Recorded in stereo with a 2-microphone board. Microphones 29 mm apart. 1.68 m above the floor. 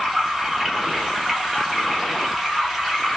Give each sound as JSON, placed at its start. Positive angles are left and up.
{"t": 0.0, "sound": "running water", "side_deg": 0, "distance_m": 2.5}